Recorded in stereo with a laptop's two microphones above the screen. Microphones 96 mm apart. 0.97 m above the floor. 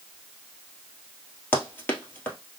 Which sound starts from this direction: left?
Running footsteps, at 1.5 s.